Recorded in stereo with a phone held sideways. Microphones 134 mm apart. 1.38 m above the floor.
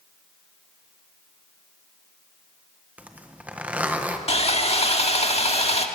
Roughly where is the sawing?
Left.